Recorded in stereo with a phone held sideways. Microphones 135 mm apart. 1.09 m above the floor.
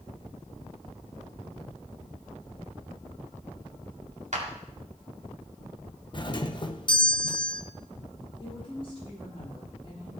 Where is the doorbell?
35° left (ahead or behind), 0.8 m.